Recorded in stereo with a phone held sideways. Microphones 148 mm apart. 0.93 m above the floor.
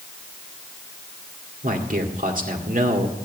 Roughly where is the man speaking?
Right.